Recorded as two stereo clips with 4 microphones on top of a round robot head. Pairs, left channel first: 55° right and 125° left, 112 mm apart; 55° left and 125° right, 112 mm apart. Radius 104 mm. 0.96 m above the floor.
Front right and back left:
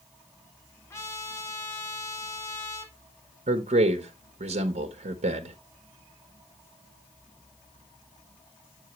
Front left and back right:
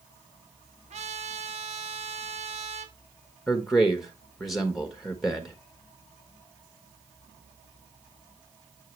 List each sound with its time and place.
0.9 s a trumpet: 120° right, 2.0 m
3.5 s a man speaking: 145° left, 1.2 m